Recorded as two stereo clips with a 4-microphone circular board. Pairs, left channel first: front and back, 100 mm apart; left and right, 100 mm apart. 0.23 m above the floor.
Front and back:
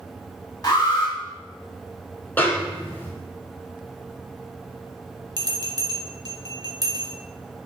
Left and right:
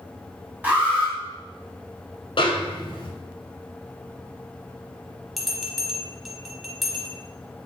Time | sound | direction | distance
0.6 | an alarm | 25° right | 1.2 m
2.4 | a snare drum | 70° left | 0.9 m
5.4 | a bell | 175° right | 0.7 m